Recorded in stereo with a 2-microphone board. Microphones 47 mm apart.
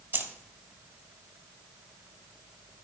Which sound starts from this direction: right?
Keys jangling, at 0.1 s.